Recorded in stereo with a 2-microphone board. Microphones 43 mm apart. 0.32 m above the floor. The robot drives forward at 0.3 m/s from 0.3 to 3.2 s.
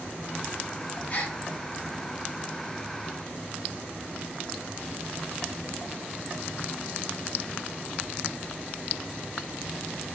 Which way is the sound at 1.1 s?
40° left (ahead or behind).